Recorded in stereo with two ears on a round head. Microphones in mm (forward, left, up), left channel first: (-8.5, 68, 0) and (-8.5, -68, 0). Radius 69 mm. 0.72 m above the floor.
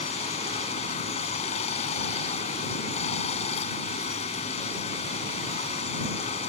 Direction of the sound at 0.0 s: 45° left (ahead or behind).